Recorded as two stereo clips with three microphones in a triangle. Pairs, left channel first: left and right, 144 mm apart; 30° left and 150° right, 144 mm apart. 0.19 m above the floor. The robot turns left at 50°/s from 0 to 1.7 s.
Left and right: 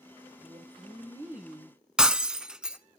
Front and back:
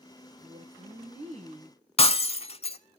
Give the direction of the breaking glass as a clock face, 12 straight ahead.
12 o'clock.